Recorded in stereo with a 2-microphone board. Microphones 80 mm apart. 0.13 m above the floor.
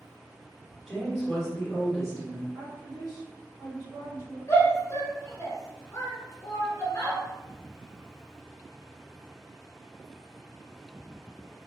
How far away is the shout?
About 1.3 m.